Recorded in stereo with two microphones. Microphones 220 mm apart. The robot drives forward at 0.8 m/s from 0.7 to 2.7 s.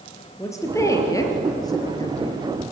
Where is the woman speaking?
15° left (ahead or behind), 4.5 m; by 2.4 s 20° left (ahead or behind), 3 m.